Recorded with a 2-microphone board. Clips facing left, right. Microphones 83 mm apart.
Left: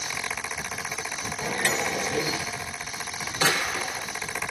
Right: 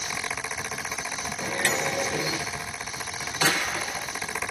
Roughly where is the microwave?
Centre.